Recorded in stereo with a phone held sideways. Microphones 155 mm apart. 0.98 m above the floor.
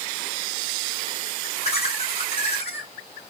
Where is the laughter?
45° left (ahead or behind), 6.5 m.